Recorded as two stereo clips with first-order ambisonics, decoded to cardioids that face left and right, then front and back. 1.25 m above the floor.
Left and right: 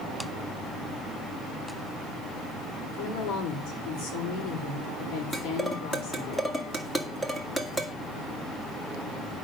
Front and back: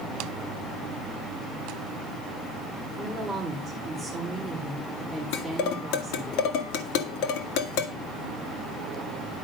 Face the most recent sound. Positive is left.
turn(degrees=5)